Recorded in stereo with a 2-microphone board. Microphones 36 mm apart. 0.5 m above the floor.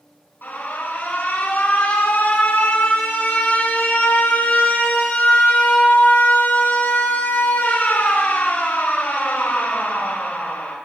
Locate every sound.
0.4 s an alarm: 75° left (ahead or behind), 5 m